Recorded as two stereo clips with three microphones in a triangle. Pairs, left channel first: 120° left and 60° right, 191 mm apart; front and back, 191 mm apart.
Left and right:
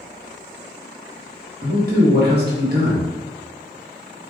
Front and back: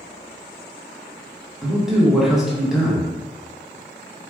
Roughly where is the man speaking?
Right.